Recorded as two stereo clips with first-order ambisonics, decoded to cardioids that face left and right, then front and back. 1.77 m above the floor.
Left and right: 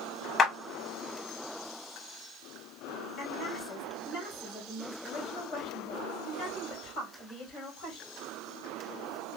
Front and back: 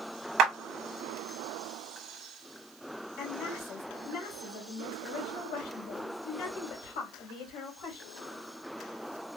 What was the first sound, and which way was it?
A clap, 150° left.